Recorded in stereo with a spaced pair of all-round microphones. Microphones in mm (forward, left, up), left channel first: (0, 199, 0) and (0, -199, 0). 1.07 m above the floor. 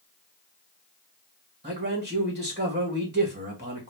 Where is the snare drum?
I don't hear a snare drum.